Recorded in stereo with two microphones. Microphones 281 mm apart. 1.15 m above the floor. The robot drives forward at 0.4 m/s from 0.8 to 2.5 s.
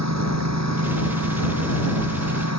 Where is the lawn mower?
70° right (ahead or behind); by 2.6 s 65° right (ahead or behind).